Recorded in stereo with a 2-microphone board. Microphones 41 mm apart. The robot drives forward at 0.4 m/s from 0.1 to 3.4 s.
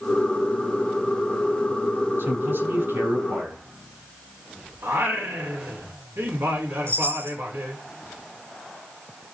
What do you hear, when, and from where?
2.2 s a man speaking: 75° right (ahead or behind), 9 m; by 3.6 s 70° right (ahead or behind), 9 m
4.8 s singing: 85° right, 4 m
6.9 s a chime: 85° right, 9.5 m